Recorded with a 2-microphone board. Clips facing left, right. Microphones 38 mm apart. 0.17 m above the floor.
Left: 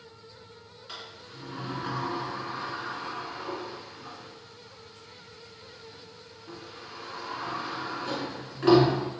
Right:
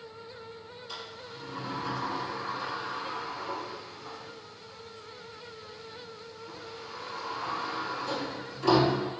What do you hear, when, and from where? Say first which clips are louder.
0.9 s a sliding door: even; 50° left (ahead or behind), 1.7 m